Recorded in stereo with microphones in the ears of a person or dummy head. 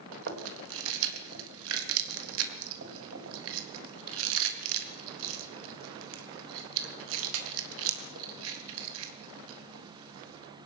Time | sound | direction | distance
0.1 | chewing | 70° right (ahead or behind) | 3.5 m